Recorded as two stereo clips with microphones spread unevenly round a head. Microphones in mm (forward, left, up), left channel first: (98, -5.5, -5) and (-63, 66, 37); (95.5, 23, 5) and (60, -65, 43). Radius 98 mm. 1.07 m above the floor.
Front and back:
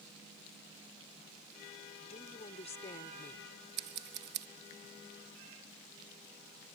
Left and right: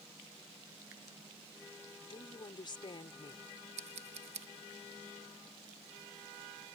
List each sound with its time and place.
2.0 s a woman speaking: 30° left
3.8 s scissors: 160° right